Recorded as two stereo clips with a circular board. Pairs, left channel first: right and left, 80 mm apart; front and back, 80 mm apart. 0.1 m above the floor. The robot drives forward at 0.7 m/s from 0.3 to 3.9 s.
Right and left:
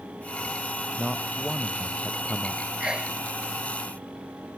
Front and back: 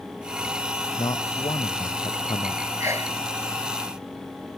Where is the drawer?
I don't hear a drawer.